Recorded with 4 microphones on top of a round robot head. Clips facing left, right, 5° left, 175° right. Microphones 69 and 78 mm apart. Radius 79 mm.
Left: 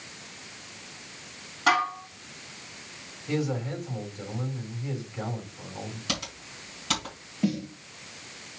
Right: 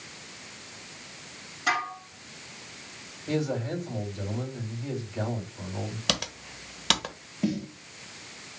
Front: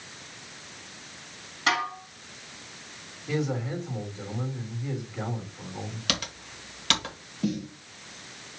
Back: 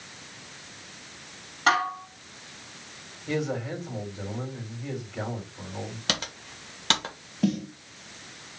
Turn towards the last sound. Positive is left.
turn(degrees=180)